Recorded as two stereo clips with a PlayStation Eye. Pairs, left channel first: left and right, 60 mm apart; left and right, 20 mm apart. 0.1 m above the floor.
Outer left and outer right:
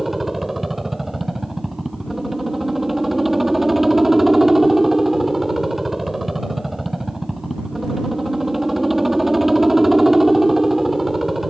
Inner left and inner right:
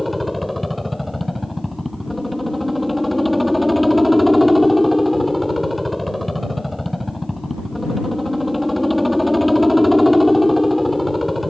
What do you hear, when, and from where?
0.0 s a helicopter: centre (ahead or behind)